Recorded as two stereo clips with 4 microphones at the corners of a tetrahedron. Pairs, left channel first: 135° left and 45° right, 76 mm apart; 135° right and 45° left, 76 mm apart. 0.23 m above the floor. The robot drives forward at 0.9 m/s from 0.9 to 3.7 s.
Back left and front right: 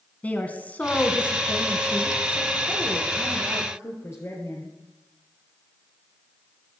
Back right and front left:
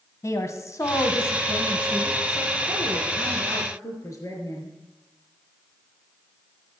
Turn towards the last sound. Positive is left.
turn(degrees=-175)